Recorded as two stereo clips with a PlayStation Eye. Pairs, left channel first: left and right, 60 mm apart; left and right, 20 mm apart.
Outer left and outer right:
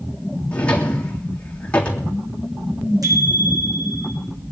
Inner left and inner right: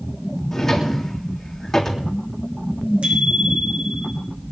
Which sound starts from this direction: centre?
A drawer, at 0.5 s.